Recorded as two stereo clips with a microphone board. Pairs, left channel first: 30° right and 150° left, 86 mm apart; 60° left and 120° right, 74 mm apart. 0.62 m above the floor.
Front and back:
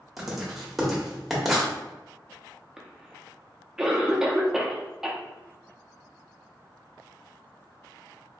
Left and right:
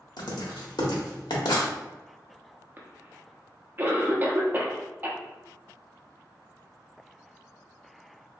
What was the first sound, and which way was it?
Writing, 65° left.